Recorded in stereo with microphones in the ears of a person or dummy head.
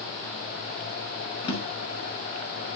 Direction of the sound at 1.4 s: 30° left (ahead or behind).